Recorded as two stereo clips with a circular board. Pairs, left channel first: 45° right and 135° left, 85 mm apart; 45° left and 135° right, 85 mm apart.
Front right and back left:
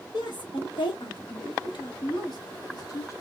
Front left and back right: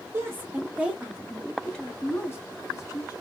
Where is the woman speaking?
75° right, 1.8 m; by 3.1 s straight ahead, 1.9 m.